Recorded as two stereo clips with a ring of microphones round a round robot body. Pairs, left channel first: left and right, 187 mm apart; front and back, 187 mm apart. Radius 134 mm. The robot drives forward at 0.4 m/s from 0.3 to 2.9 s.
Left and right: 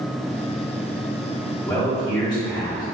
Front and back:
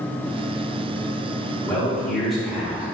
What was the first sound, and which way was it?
A man speaking, 60° left.